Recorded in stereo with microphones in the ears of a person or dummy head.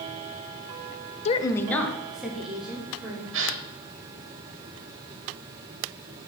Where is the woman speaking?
35° left (ahead or behind), 0.5 m; by 3.2 s 10° right (ahead or behind), 3.5 m.